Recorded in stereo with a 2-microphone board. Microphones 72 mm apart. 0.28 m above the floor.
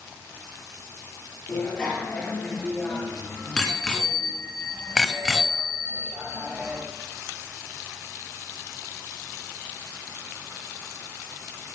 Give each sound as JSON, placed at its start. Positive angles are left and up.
{"t": 1.5, "sound": "a bicycle bell", "side_deg": 15, "distance_m": 4.5}